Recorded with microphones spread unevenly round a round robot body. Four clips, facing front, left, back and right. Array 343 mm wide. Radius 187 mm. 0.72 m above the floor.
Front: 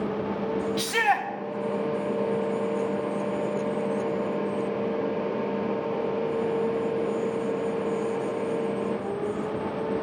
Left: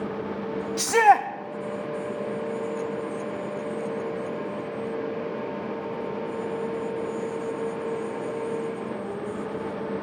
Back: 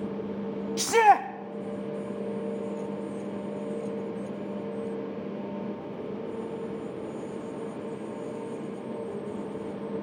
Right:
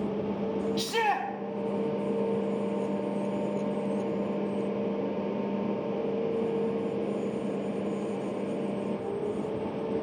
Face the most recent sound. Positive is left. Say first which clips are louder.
# left 14 dB, back 8 dB
turn(degrees=110)